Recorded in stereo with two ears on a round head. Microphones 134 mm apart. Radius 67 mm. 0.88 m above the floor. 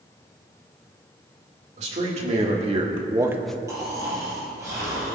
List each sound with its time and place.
1.8 s a man speaking: 50° right (ahead or behind), 3 m; by 3.6 s 10° left (ahead or behind), 0.7 m
3.7 s snoring: 20° right (ahead or behind), 5 m